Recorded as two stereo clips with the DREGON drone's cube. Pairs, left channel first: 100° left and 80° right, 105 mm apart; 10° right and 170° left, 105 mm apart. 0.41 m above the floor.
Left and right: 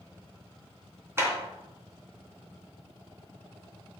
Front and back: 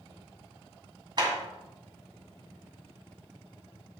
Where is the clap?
145° right, 2.5 m.